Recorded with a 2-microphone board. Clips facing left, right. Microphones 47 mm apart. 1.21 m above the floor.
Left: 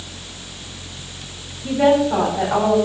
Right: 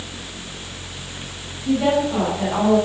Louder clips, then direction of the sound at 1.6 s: Left 3 dB; 40° left (ahead or behind).